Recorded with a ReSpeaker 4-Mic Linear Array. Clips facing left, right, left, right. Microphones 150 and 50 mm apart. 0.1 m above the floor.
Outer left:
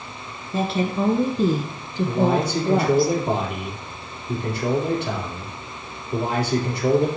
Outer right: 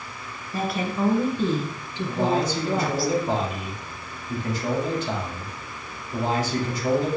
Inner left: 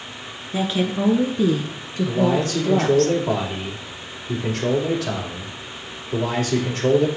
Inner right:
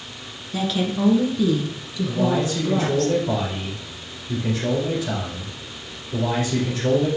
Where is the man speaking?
65° left (ahead or behind), 4 m.